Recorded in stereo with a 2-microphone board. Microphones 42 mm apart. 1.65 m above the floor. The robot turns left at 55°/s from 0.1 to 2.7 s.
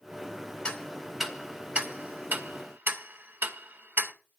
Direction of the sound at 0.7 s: 20° left (ahead or behind).